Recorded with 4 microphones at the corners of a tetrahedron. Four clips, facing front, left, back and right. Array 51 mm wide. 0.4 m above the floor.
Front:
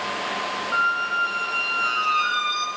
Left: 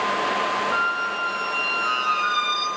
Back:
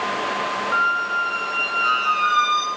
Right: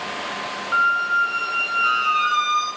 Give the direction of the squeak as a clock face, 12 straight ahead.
4 o'clock.